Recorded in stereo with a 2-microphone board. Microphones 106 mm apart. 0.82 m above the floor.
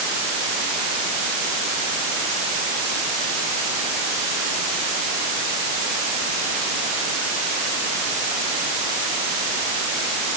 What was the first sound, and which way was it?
Only background noise.